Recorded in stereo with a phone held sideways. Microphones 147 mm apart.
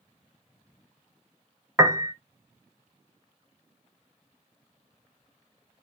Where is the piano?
20° right (ahead or behind), 0.5 m.